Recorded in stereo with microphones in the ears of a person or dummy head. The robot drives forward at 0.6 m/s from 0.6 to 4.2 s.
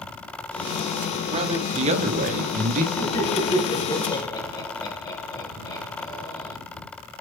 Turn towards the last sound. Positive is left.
turn(degrees=20)  # may be behind; listen again after turning